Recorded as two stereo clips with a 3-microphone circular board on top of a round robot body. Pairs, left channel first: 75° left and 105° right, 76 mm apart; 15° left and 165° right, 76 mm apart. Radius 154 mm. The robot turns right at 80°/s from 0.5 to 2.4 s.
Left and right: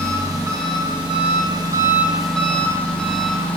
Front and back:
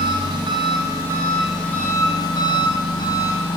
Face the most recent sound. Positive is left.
turn(degrees=0)